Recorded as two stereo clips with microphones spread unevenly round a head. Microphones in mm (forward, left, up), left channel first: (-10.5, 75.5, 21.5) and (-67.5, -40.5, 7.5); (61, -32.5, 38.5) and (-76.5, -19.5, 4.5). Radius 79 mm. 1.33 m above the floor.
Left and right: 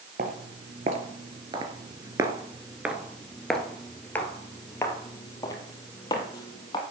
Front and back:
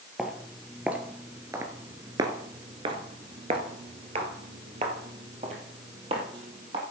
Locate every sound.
0.2 s footsteps: 85° right, 1.8 m; by 6.8 s 115° left, 3 m